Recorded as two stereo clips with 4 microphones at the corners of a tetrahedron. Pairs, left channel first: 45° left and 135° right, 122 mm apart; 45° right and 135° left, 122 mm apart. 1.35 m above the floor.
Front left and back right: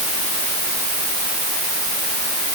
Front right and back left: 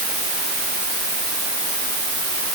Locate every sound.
Only background noise.